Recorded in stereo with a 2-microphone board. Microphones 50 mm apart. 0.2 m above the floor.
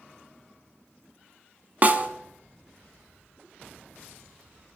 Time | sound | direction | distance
1.8 | a snare drum | 35° right (ahead or behind) | 0.5 m